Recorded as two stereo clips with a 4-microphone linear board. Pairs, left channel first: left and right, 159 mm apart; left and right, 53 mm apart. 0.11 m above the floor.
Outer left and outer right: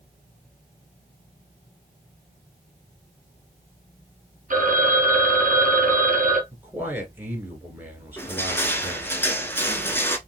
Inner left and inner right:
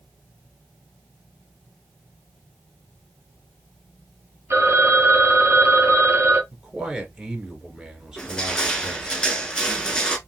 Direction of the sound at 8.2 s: 15° left (ahead or behind).